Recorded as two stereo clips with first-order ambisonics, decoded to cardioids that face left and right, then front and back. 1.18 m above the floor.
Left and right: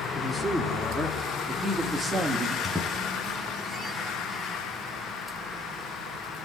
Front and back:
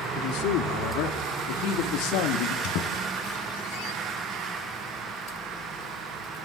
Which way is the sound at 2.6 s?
5° right.